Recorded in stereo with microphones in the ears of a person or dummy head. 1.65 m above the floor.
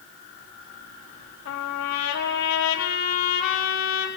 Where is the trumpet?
90° left, 4.5 m.